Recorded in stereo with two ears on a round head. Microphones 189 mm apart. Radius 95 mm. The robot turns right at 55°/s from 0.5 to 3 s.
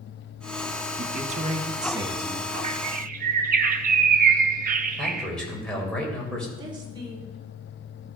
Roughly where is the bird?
Right.